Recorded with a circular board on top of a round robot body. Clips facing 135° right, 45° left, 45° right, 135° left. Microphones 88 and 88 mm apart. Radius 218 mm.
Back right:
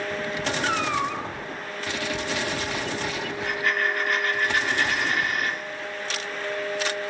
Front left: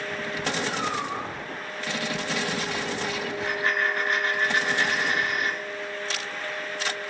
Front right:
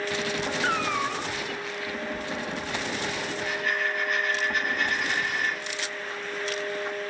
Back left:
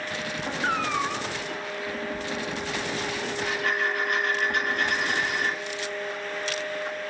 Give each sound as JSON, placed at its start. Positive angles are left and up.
{"t": 0.6, "sound": "a cat meowing", "azimuth_deg": -140, "distance_m": 1.9}
{"t": 3.4, "sound": "a dropped coin", "azimuth_deg": 110, "distance_m": 6.5}